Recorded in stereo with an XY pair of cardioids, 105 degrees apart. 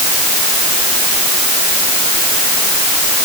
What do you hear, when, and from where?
Only background noise.